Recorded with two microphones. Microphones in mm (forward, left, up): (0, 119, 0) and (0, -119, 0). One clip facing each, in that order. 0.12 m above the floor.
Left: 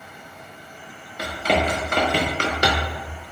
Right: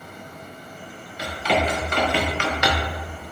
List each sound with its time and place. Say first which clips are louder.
1.2 s running footsteps: left 1 dB; 55° left (ahead or behind), 1.6 m; by 3.0 s 30° left (ahead or behind), 0.8 m